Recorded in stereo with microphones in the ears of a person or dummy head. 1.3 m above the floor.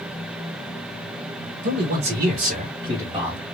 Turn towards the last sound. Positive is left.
turn(degrees=-5)  # may be behind; listen again after turning